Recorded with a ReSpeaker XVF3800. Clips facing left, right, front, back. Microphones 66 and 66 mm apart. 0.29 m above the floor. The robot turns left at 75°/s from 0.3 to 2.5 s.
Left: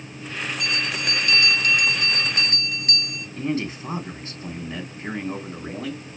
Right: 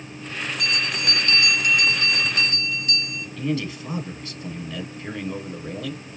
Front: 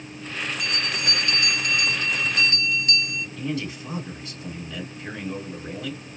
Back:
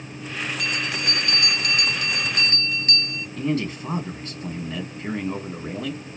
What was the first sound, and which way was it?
A bell, 85° right.